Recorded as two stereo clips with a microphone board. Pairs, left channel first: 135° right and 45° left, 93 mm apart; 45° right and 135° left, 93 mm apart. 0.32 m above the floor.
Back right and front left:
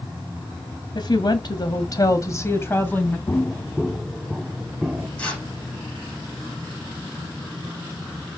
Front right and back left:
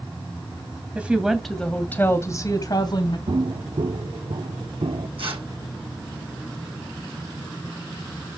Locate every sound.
0.9 s a woman speaking: 155° right, 2 m; by 3.2 s 65° right, 2.5 m
3.3 s footsteps: 155° left, 1.0 m; by 5.1 s 125° left, 1.7 m
5.2 s tearing paper: 150° left, 6 m